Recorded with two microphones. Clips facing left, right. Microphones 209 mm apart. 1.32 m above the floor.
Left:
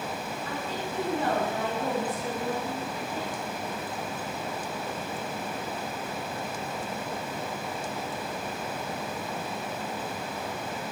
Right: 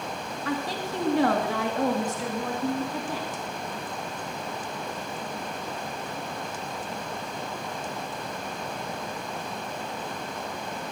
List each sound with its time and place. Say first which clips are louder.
0.5 s a woman speaking: right 6 dB; 85° right, 1.9 m